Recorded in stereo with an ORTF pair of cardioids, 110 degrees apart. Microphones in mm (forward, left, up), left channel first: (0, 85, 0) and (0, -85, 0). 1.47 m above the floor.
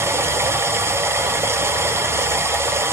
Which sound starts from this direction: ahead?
Running water, at 0.0 s.